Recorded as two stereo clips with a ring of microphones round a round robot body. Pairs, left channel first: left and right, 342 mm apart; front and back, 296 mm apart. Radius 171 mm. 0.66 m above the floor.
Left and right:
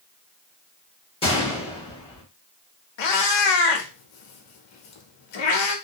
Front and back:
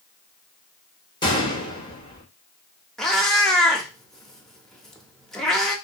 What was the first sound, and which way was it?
A gunshot, 45° left.